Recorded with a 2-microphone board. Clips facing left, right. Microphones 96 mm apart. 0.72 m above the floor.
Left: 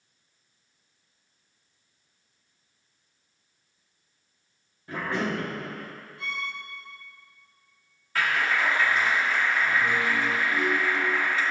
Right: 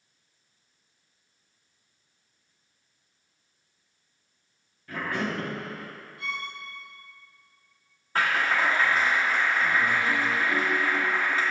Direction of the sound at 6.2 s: 30° left (ahead or behind).